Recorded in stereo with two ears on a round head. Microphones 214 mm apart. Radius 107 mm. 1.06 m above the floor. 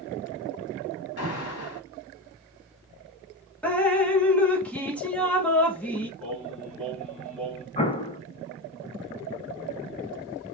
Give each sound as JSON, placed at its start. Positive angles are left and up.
{"t": 1.2, "sound": "an alarm", "side_deg": 75, "distance_m": 1.6}
{"t": 3.6, "sound": "dripping", "side_deg": 5, "distance_m": 1.0}
{"t": 6.2, "sound": "singing", "side_deg": 5, "distance_m": 2.5}
{"t": 7.8, "sound": "an explosion", "side_deg": 25, "distance_m": 0.9}